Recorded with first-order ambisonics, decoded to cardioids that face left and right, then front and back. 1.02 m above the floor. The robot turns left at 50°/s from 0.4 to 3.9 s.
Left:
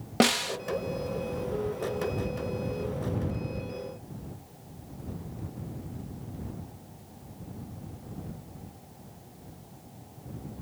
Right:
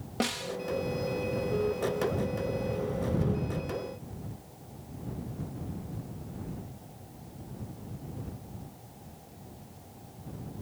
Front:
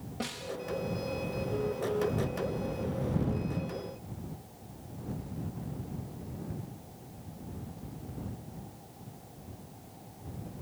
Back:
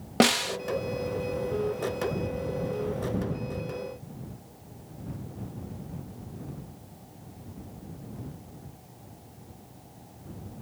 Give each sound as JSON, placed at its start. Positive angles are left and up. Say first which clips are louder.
{"t": 0.2, "sound": "a snare drum", "louder": "left 8 dB, back 15 dB", "azimuth_deg": 150}